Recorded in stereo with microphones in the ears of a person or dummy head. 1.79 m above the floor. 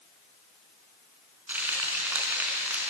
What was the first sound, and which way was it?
Frying, 10° right (ahead or behind).